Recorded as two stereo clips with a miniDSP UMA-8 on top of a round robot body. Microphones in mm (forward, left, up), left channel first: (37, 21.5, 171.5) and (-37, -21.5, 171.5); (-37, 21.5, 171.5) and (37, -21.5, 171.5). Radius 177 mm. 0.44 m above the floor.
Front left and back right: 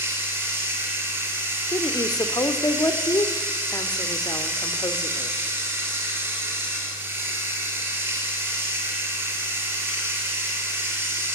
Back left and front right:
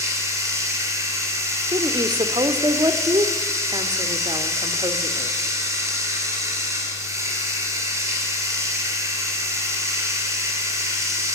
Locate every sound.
0.0 s running water: 85° right, 4.5 m
1.7 s a woman speaking: 10° right, 1.8 m